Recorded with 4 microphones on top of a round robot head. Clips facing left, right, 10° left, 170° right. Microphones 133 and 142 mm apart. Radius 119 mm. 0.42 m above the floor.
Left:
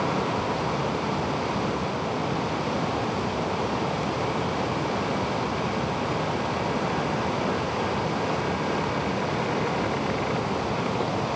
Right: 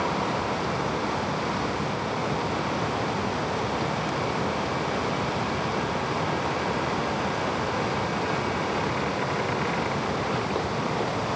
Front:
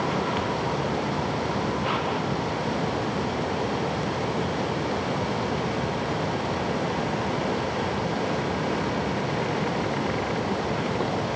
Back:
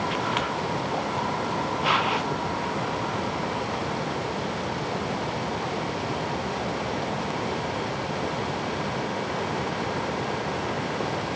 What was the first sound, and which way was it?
Only background noise.